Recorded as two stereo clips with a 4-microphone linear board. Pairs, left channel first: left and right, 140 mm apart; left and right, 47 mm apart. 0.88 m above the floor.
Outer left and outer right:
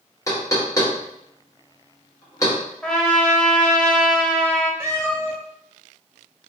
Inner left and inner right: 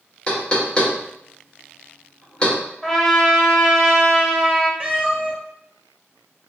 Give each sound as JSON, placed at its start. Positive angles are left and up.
{"t": 0.3, "sound": "knocking", "side_deg": 25, "distance_m": 1.1}
{"t": 2.8, "sound": "a trumpet", "side_deg": 5, "distance_m": 0.8}
{"t": 4.8, "sound": "a cat meowing", "side_deg": -20, "distance_m": 1.4}